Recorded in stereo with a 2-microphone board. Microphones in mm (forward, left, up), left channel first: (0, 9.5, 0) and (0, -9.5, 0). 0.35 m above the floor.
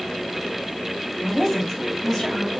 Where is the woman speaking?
Centre (ahead or behind), 1.9 m; by 2.5 s 15° left (ahead or behind), 1.4 m.